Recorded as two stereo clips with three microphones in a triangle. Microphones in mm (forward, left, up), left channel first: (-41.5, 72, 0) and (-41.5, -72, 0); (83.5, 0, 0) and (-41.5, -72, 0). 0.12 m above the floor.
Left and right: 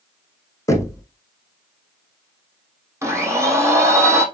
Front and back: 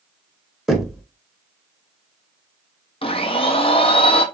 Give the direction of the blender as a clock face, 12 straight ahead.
1 o'clock.